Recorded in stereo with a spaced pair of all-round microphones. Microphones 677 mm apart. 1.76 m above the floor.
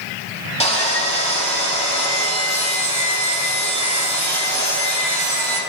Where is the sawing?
10° left (ahead or behind), 1.3 m.